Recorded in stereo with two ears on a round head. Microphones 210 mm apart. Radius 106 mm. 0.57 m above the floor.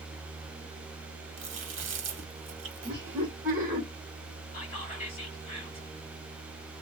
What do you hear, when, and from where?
1.4 s chewing: 55° right (ahead or behind), 1.5 m
2.8 s laughter: 15° right (ahead or behind), 2 m
4.5 s whispering: 25° left (ahead or behind), 2.5 m